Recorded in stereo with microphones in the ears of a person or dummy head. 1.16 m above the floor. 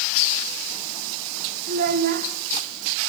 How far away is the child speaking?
About 2.5 m.